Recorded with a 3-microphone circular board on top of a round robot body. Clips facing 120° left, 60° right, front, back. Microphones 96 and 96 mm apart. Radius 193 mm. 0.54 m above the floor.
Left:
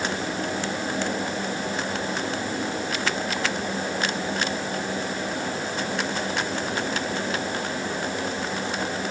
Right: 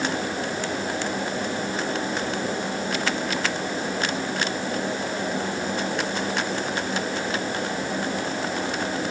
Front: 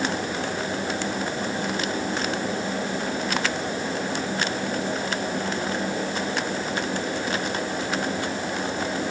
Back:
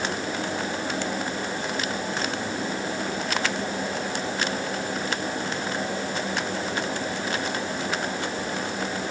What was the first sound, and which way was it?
Only background noise.